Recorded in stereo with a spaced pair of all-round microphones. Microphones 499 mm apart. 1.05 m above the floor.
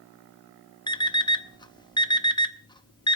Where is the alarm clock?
10° left (ahead or behind), 0.7 m.